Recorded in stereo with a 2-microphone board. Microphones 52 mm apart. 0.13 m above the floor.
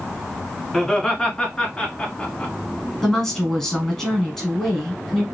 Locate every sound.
0.7 s laughter: 10° left (ahead or behind), 1.1 m; by 2.5 s 25° left (ahead or behind), 1.7 m
3.0 s a woman speaking: 5° left (ahead or behind), 1.3 m